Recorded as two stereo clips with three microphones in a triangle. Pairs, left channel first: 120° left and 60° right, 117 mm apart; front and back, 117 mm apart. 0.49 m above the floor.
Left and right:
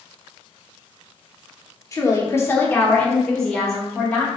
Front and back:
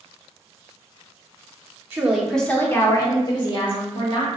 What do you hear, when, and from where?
1.9 s a woman speaking: 130° left, 0.8 m; by 4.3 s 30° left, 1.6 m